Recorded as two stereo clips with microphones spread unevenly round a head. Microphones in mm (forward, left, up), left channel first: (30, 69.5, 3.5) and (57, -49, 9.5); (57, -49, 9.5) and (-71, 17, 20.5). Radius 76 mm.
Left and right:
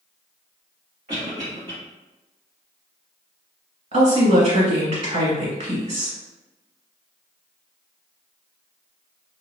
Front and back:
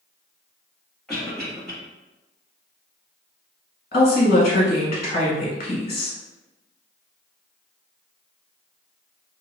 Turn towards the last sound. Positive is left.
turn(degrees=-55)